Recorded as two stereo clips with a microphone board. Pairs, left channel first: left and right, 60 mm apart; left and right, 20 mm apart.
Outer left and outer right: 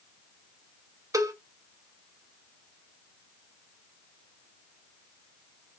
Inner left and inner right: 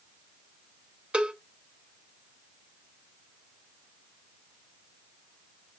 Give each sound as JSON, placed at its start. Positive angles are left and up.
{"t": 1.1, "sound": "a cowbell", "side_deg": -70, "distance_m": 0.5}